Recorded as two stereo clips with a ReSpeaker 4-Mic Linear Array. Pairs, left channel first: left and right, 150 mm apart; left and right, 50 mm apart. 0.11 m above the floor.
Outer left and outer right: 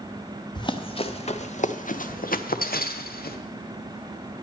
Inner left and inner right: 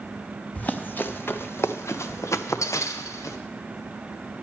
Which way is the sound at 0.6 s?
30° left (ahead or behind).